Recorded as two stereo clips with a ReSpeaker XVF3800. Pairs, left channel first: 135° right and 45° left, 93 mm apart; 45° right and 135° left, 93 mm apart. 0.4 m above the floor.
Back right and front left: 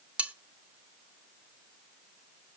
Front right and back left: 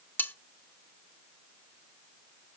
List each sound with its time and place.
0.2 s cutlery clinking: 10° right, 0.5 m